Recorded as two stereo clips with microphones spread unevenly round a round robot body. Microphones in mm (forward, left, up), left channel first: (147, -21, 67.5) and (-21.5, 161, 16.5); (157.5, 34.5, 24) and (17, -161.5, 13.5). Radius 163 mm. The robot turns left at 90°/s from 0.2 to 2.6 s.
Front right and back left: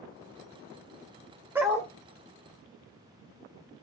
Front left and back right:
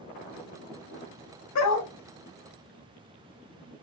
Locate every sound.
1.6 s a dog barking: 55° left, 0.8 m; by 1.9 s 20° left, 0.8 m